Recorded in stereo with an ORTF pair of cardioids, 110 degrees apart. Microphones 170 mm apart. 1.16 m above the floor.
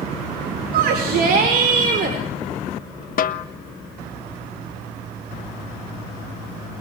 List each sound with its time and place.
0.7 s a shout: 65° right, 4.5 m; by 2.2 s 55° right, 4.5 m
3.2 s a snare drum: 55° left, 1.1 m